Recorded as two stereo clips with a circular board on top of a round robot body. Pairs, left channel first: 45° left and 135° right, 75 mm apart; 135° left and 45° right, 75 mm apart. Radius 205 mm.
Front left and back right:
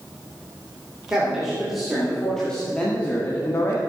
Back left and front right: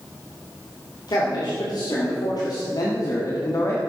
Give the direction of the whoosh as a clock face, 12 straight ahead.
I don't hear a whoosh.